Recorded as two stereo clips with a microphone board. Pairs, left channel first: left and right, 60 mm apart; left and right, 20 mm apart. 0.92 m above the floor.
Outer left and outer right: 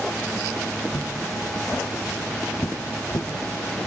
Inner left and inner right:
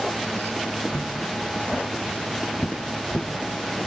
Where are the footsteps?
45° left (ahead or behind), 3.5 m; by 3.3 s 70° left (ahead or behind), 2.5 m.